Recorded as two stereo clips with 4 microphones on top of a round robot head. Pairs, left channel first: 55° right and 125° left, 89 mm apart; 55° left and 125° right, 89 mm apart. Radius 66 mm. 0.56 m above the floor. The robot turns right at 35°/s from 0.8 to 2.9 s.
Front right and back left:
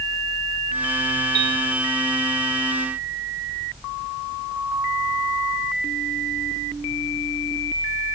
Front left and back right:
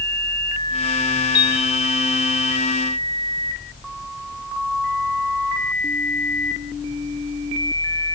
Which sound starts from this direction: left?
A piano, at 1.4 s.